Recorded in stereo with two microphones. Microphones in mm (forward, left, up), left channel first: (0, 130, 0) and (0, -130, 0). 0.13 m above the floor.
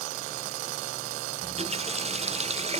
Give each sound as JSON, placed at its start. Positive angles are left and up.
{"t": 1.4, "sound": "a running tap", "side_deg": -25}